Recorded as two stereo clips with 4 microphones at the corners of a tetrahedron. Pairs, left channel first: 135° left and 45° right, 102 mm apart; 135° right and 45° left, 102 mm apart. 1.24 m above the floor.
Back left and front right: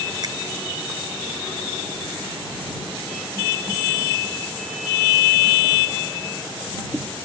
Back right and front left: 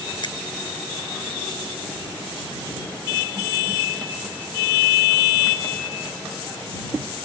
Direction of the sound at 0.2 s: 95° right.